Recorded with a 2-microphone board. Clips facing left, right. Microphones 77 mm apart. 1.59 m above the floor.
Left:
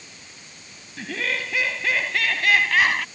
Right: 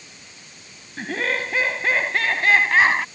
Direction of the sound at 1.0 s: 40° right (ahead or behind).